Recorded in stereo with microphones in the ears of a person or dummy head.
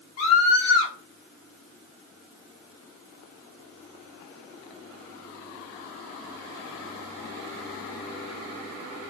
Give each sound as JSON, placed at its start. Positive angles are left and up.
{"t": 0.2, "sound": "a scream", "side_deg": 80, "distance_m": 3.5}